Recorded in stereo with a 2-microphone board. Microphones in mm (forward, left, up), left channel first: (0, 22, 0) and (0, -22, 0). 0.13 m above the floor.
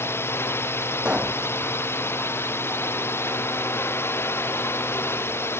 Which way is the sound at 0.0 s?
70° left (ahead or behind).